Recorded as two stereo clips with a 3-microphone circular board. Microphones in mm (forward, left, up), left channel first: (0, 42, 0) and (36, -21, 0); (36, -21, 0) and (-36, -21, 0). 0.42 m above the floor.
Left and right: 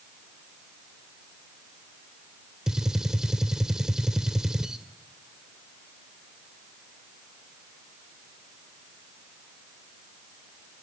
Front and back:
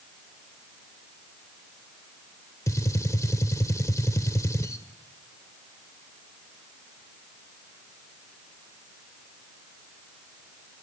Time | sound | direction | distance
2.7 | a gunshot | 20° left | 0.9 m